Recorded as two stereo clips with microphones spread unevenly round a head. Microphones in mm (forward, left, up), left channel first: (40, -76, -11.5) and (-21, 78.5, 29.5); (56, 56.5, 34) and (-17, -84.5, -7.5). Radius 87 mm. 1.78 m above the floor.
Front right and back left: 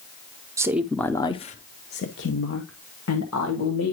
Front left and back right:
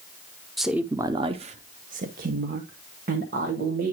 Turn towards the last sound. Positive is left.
turn(degrees=-75)